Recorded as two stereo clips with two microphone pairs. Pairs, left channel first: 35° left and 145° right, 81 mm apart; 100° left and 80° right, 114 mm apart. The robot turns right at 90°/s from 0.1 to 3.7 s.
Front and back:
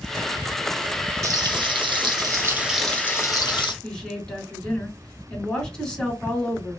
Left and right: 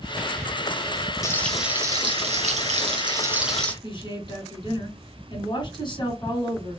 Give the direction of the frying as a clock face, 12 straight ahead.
7 o'clock.